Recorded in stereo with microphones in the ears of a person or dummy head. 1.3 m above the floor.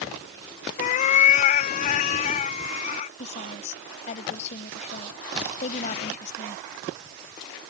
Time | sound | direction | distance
0.8 | a cat meowing | 50° left (ahead or behind) | ?
3.2 | a woman speaking | 40° left (ahead or behind) | ?